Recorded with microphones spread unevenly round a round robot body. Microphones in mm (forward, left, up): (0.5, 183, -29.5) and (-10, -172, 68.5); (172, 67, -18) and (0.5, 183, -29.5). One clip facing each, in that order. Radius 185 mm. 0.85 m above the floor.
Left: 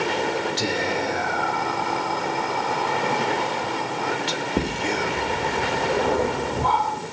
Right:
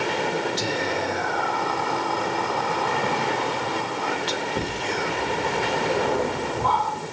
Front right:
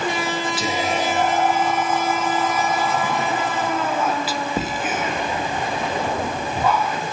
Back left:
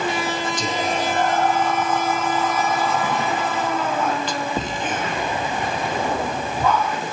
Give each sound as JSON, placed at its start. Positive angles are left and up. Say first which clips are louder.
{"t": 0.6, "sound": "whispering", "louder": "left 1 dB, front right 1 dB", "azimuth_deg": 50, "distance_m": 1.2}